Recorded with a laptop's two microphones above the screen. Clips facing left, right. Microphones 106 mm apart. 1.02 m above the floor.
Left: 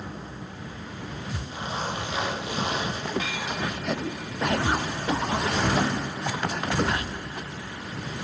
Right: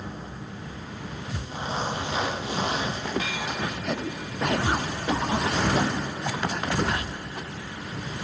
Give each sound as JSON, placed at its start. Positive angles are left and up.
{"t": 1.5, "sound": "a zipper", "side_deg": -35, "distance_m": 5.5}